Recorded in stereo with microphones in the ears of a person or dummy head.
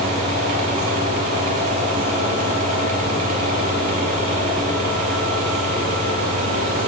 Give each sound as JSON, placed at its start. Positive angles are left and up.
{"t": 0.0, "sound": "a fan", "side_deg": -45, "distance_m": 6.0}